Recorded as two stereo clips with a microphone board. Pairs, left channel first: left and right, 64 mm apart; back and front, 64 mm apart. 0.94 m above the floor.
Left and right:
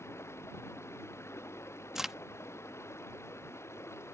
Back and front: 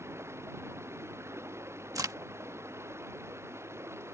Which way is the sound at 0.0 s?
45° left.